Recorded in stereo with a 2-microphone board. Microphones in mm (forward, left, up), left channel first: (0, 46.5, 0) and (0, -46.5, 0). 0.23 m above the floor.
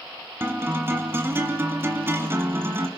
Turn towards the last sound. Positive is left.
turn(degrees=-25)  # may be behind; listen again after turning